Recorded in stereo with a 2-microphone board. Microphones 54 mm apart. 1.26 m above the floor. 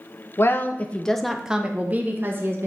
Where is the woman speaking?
45° left (ahead or behind), 0.8 m; by 2.7 s 45° right (ahead or behind), 1.4 m.